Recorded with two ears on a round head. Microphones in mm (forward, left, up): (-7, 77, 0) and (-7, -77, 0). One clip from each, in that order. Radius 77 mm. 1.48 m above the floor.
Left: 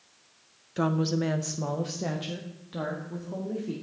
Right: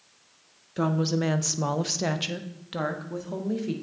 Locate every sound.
0.8 s a woman speaking: 10° left (ahead or behind), 0.6 m; by 3.7 s 75° right (ahead or behind), 1.6 m